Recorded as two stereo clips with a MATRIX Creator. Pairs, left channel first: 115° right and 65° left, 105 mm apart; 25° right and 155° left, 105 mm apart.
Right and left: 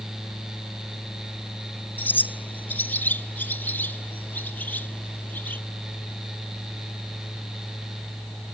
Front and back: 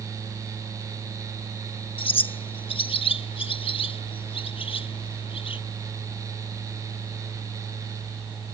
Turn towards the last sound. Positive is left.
turn(degrees=-40)